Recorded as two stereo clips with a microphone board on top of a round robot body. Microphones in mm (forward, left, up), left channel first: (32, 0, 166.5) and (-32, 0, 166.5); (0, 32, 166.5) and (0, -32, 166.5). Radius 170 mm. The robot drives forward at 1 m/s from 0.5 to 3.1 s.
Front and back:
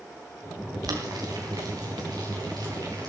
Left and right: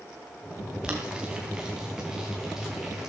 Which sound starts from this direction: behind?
Boiling, at 0.8 s.